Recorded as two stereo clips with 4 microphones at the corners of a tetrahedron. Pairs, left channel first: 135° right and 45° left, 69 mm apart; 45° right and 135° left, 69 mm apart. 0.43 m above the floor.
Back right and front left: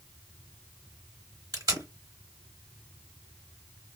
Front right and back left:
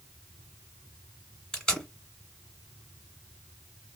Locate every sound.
1.5 s tape being pulled: 35° left, 1.8 m